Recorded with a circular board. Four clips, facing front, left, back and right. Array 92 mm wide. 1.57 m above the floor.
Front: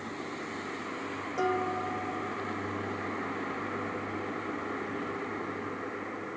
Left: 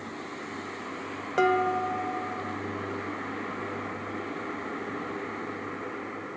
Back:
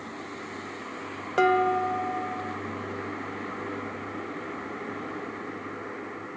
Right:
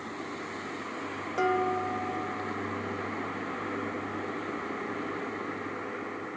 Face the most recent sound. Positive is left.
turn(degrees=155)